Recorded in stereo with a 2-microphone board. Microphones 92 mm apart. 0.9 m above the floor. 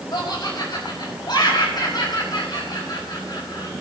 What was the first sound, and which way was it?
Laughter, 50° left (ahead or behind).